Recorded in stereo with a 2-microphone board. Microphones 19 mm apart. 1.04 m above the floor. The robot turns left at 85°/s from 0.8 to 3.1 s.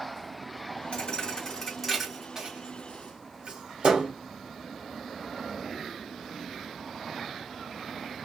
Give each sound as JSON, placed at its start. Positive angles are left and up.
{"t": 0.9, "sound": "a thud", "side_deg": 60, "distance_m": 1.4}